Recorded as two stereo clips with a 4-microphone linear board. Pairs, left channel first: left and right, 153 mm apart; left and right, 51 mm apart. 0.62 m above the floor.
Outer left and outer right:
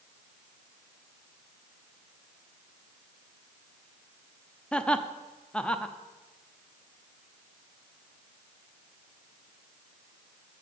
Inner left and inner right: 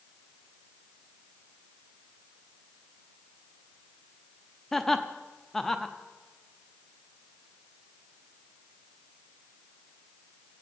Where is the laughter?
5° left (ahead or behind), 0.7 m.